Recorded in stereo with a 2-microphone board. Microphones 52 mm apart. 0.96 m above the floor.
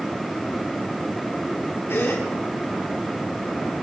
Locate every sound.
1.9 s a gasp: 50° left (ahead or behind), 3.5 m